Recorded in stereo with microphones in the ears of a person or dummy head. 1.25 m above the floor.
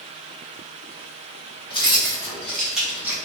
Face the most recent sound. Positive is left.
turn(degrees=-10)  # may be behind; listen again after turning